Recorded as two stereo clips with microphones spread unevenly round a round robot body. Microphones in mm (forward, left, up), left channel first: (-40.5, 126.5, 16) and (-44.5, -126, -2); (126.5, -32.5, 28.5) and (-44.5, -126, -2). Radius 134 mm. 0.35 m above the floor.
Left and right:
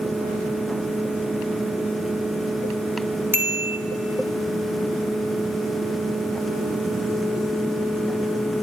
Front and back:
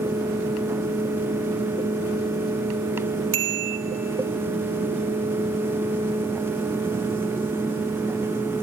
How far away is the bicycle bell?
About 2.5 m.